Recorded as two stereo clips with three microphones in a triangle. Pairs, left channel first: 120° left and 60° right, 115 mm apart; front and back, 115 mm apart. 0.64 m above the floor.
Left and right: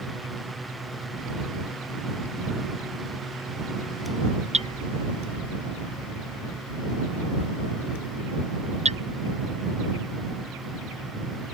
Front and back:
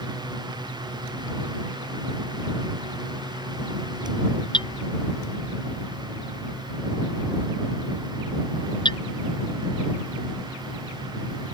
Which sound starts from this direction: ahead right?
Hammering, at 4.5 s.